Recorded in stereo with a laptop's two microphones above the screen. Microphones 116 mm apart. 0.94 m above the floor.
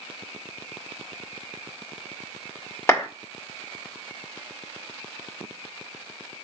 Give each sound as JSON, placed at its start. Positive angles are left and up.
{"t": 2.9, "sound": "a clap", "side_deg": 20, "distance_m": 2.0}